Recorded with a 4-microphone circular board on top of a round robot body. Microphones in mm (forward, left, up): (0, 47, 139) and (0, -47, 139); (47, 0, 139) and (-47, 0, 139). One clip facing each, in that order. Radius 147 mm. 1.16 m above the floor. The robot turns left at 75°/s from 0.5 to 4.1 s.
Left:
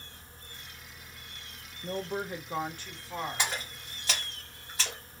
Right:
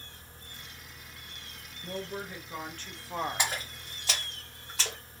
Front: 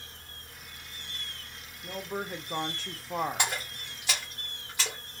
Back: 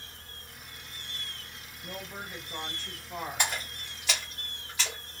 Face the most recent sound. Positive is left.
turn(degrees=-75)